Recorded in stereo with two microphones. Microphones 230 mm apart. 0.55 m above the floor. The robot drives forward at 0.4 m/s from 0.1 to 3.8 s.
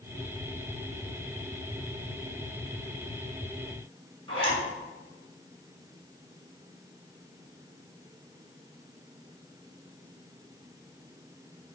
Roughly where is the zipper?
Right.